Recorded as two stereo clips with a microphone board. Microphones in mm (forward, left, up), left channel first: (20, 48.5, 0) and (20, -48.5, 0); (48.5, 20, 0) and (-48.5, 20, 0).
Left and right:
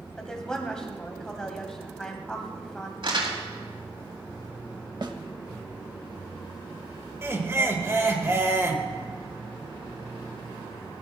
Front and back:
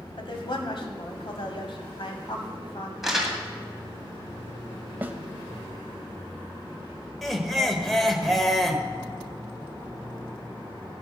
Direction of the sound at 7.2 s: 85° right.